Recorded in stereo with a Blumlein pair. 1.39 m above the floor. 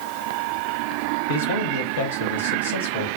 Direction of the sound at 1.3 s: 60° left.